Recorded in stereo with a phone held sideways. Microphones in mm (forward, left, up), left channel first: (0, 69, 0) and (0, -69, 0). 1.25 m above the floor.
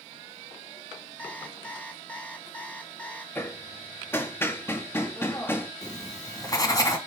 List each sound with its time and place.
1.2 s an alarm clock: 10° left (ahead or behind), 2.5 m
3.4 s hammering: 15° left (ahead or behind), 1.8 m
5.8 s writing: 25° left (ahead or behind), 2.5 m